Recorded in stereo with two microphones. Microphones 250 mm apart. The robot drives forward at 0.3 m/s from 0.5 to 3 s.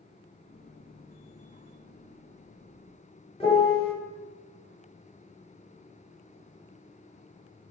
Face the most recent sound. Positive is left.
turn(degrees=20)  # may be behind; listen again after turning